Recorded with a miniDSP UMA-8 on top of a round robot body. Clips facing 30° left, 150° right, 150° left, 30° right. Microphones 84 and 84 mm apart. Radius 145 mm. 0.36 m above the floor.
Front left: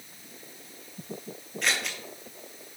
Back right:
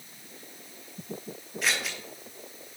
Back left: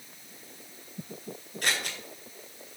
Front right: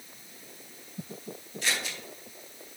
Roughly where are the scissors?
Behind left.